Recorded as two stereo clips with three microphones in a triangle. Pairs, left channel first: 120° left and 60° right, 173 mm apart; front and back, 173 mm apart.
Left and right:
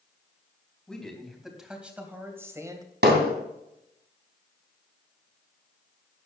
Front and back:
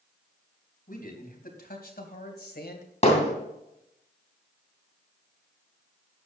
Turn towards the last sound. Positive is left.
turn(degrees=-55)